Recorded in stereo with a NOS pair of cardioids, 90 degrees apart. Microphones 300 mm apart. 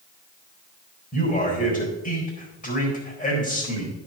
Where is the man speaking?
30° left, 4 m.